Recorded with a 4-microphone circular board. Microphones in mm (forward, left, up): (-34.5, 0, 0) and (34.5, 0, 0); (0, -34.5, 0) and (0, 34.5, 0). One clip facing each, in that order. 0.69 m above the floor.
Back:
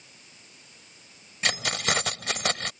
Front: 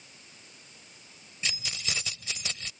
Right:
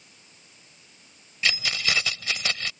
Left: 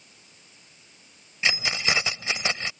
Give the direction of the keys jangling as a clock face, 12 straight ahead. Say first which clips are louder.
Back 10 dB, left 1 dB; 7 o'clock.